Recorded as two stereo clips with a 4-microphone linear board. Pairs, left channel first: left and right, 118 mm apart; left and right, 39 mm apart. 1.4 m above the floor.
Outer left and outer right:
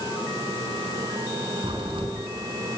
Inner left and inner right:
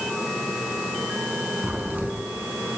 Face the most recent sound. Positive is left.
turn(degrees=-45)  # may be behind; listen again after turning